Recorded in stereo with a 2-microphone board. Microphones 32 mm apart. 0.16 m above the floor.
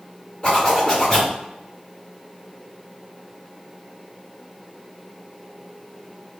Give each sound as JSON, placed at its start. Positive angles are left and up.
{"t": 0.4, "sound": "a zipper", "side_deg": 30, "distance_m": 1.8}